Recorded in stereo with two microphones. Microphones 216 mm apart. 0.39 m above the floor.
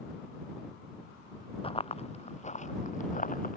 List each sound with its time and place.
1.6 s running footsteps: 25° left (ahead or behind); by 3.6 s 40° left (ahead or behind)